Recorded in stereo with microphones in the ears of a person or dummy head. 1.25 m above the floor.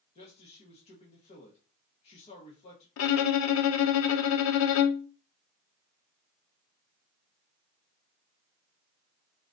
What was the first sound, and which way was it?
A man speaking, 35° left (ahead or behind).